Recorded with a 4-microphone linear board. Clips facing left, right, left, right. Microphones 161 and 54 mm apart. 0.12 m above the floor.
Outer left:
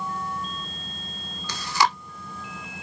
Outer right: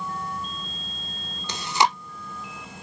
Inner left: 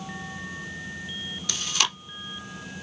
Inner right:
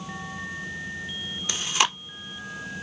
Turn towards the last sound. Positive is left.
turn(degrees=-20)  # may be behind; listen again after turning